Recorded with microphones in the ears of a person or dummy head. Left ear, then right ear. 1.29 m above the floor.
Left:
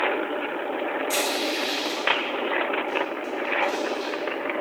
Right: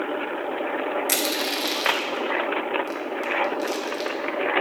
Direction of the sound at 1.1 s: 70° right (ahead or behind).